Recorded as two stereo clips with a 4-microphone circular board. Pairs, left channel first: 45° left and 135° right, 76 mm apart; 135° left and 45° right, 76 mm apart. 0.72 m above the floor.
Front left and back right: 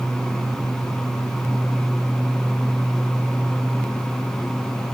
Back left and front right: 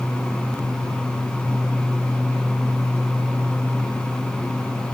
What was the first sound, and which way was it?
Only background noise.